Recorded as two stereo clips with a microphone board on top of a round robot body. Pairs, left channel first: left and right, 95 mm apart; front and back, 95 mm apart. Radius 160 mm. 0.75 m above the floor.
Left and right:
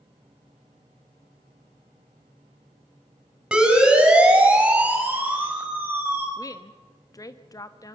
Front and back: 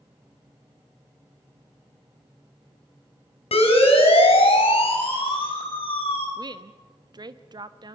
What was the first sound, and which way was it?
A siren, 10° right.